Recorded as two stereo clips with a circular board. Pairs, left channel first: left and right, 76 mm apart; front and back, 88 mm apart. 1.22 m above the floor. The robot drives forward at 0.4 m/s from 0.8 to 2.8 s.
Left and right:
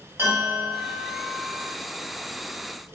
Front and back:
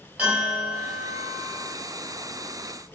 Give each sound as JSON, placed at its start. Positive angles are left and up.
{"t": 0.2, "sound": "a bell", "azimuth_deg": -115, "distance_m": 1.0}